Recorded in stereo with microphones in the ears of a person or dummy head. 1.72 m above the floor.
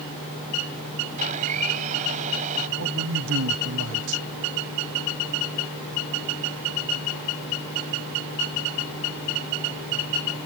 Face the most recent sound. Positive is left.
turn(degrees=-75)  # may be behind; listen again after turning